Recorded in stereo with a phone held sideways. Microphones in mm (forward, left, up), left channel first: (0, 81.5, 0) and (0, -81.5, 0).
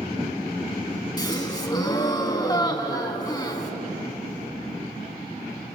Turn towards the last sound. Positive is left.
turn(degrees=25)  # may be behind; listen again after turning